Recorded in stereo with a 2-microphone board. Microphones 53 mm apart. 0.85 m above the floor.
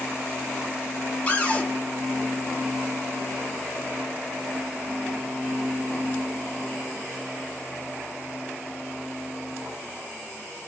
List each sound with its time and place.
1.3 s a cupboard door: 25° left (ahead or behind), 0.7 m